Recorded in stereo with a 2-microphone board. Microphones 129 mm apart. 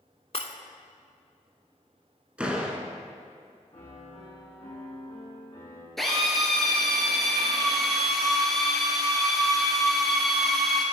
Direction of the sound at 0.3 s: 50° left (ahead or behind).